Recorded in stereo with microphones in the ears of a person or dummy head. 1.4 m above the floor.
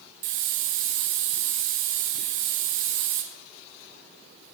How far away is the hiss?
About 0.7 m.